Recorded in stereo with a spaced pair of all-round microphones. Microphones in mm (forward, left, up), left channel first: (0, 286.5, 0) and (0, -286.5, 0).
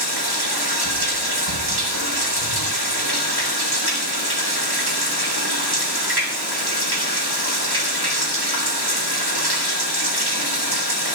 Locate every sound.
0.0 s running water: 40° right (ahead or behind), 3 m